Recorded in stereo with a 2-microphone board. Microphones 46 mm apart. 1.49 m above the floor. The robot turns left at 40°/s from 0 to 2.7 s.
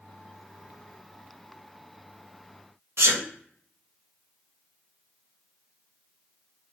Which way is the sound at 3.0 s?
65° right (ahead or behind).